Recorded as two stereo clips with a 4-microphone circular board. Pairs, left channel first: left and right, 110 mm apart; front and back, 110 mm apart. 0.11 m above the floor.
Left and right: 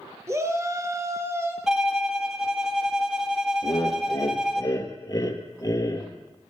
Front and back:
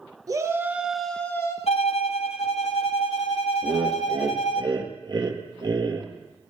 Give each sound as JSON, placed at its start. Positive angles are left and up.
{"t": 0.3, "sound": "a shout", "azimuth_deg": -140, "distance_m": 1.7}
{"t": 1.7, "sound": "a violin", "azimuth_deg": -5, "distance_m": 1.6}
{"t": 3.6, "sound": "laughter", "azimuth_deg": 140, "distance_m": 3.0}